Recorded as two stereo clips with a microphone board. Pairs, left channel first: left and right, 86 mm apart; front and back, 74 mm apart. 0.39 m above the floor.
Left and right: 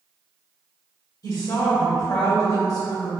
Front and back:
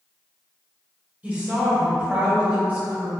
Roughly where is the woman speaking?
Behind left.